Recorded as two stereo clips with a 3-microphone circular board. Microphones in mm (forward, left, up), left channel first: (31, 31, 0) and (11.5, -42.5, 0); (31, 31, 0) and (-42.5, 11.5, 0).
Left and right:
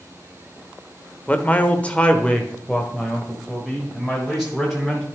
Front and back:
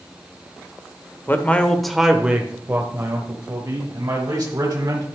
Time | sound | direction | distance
1.3 | a man speaking | 30° left | 1.0 m